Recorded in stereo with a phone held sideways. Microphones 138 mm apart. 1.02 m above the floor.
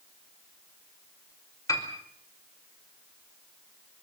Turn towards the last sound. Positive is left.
turn(degrees=25)  # may be behind; listen again after turning